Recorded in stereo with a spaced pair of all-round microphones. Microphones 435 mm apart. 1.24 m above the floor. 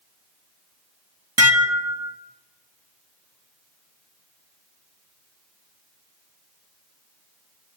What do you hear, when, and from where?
1.4 s dishes clattering: 35° right (ahead or behind), 1.3 m